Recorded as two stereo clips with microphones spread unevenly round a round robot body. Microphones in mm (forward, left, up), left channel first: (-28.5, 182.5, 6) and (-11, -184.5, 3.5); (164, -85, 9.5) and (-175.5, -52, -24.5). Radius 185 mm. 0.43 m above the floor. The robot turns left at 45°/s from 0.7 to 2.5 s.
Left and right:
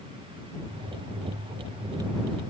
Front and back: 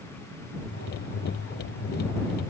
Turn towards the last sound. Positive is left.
No sound to turn to.